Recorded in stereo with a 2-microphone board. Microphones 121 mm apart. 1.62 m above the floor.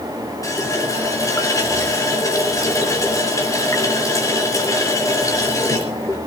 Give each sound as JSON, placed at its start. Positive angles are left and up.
{"t": 0.4, "sound": "a running tap", "side_deg": 30, "distance_m": 3.5}